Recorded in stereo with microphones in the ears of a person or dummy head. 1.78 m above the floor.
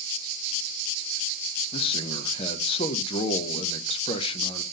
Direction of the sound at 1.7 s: 30° left (ahead or behind).